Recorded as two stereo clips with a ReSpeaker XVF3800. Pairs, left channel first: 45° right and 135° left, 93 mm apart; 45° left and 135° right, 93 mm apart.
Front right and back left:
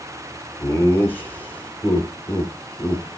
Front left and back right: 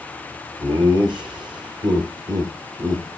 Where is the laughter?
115° right, 3.5 m.